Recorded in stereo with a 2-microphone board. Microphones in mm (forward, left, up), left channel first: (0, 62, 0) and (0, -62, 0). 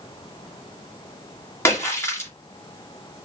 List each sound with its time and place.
1.6 s a splash: 20° left (ahead or behind), 2.5 m